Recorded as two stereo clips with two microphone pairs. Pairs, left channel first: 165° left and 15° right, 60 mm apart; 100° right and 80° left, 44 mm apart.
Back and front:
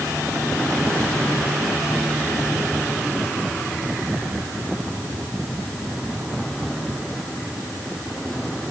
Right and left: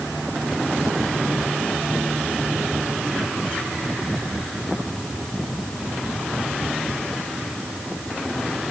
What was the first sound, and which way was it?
Only background noise.